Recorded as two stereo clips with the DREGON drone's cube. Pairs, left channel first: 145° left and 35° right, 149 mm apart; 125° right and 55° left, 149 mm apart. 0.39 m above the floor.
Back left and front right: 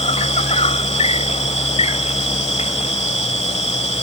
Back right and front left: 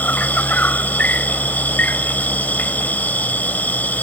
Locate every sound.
0.0 s an insect: 160° left